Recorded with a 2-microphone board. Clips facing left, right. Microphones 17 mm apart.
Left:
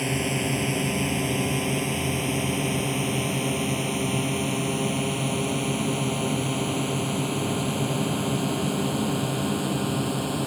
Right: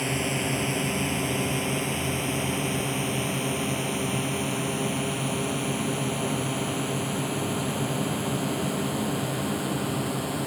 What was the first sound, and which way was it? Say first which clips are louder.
A drone: left 1 dB; centre (ahead or behind).